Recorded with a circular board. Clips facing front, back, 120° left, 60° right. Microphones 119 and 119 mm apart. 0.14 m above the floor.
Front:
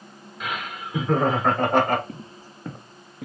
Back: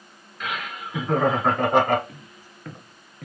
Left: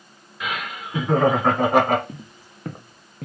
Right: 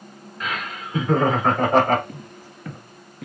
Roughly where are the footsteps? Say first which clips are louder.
Front 7 dB, right 2 dB; ahead left.